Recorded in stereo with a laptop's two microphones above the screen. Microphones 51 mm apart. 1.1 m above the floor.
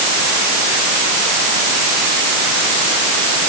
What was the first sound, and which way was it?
Only background noise.